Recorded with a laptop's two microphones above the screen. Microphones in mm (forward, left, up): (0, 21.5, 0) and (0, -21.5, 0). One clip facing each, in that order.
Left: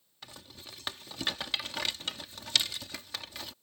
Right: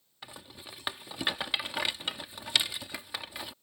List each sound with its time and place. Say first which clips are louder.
0.2 s a rattle: right 3 dB; 20° right (ahead or behind)